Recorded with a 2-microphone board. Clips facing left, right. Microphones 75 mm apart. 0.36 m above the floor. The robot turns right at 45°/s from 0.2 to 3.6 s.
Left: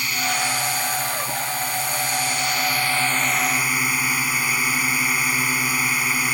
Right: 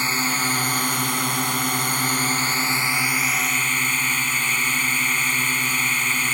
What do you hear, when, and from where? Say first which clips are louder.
0.0 s a drone: right 1 dB; 145° right; by 6.3 s 10° left